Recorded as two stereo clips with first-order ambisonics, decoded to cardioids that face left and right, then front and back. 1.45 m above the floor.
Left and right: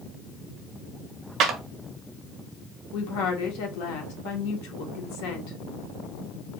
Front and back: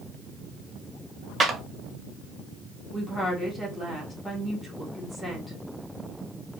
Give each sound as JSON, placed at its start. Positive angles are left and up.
{"t": 1.4, "sound": "a clap", "azimuth_deg": -125, "distance_m": 0.7}
{"t": 2.9, "sound": "a woman speaking", "azimuth_deg": 90, "distance_m": 1.3}